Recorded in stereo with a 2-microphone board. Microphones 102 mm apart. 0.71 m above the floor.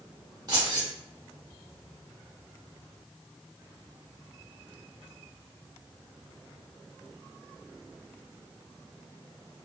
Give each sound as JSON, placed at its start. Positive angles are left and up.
{"t": 0.5, "sound": "keys jangling", "side_deg": -40, "distance_m": 1.5}